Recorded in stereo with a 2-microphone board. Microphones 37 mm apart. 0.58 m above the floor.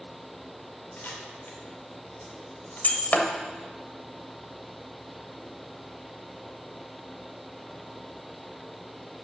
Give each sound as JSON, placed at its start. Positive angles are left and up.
{"t": 1.0, "sound": "a camera shutter", "side_deg": 60, "distance_m": 2.5}
{"t": 2.8, "sound": "breaking glass", "side_deg": 45, "distance_m": 1.2}